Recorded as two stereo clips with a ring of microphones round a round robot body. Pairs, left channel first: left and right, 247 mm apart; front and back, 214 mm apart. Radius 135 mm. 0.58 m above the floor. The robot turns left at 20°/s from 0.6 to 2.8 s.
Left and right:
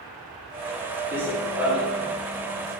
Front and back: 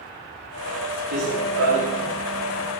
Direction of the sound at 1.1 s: 170° right.